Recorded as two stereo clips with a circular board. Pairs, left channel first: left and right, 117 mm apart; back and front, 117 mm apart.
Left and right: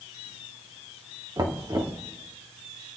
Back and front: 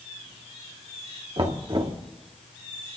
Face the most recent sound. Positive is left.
turn(degrees=-40)